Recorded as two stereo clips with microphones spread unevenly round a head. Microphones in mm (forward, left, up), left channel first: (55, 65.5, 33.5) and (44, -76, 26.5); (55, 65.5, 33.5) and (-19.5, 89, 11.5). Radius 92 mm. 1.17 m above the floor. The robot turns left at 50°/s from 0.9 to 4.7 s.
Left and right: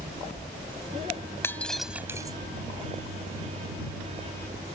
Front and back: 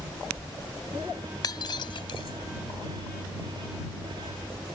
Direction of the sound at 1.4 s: 15° left.